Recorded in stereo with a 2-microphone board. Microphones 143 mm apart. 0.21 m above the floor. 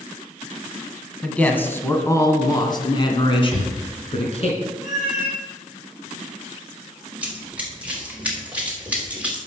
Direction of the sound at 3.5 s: Centre (ahead or behind).